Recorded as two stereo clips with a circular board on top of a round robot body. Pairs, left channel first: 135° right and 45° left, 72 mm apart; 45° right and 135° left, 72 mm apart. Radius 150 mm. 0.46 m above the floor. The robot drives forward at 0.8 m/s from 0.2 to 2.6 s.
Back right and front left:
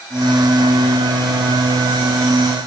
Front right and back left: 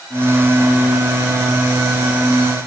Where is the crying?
I don't hear crying.